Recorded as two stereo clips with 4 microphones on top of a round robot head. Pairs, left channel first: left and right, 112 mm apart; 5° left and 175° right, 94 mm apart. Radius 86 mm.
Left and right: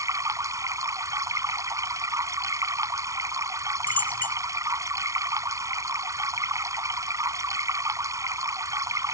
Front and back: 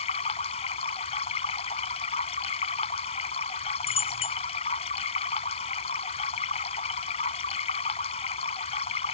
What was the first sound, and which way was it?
Running water, 30° right.